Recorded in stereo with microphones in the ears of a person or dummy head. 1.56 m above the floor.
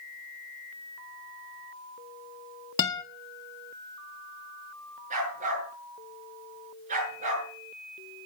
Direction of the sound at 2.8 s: 20° left (ahead or behind).